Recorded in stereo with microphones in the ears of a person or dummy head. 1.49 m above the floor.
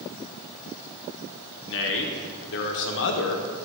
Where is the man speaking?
65° left (ahead or behind), 1.1 m.